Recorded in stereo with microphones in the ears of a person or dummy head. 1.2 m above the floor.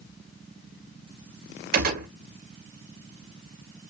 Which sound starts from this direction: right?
A gunshot, at 1.7 s.